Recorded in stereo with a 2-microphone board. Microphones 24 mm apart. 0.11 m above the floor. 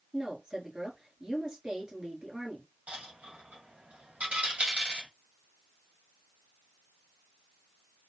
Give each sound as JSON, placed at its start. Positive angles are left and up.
{"t": 0.1, "sound": "a woman speaking", "side_deg": -35, "distance_m": 1.6}
{"t": 2.9, "sound": "a dropped coin", "side_deg": -65, "distance_m": 1.8}